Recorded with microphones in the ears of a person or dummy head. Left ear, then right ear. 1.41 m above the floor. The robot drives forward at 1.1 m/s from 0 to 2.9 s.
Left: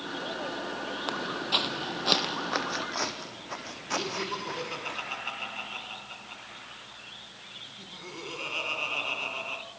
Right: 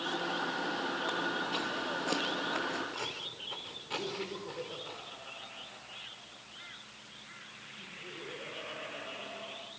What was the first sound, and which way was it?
Footsteps, 25° left (ahead or behind).